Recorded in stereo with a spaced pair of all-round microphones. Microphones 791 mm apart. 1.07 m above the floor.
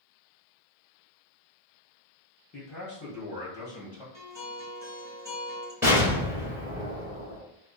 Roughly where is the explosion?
Centre.